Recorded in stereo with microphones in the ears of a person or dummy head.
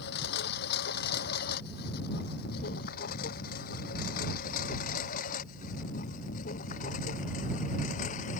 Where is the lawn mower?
60° left (ahead or behind); by 8.4 s 40° left (ahead or behind).